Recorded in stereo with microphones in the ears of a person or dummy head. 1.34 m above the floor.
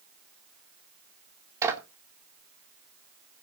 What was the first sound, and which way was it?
A clap, 20° right (ahead or behind).